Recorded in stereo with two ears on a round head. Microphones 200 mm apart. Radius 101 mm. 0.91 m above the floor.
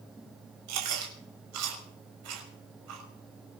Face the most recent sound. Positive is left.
turn(degrees=-80)